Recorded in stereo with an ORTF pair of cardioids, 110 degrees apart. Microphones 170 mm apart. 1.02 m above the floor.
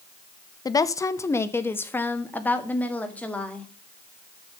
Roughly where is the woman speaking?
Ahead left.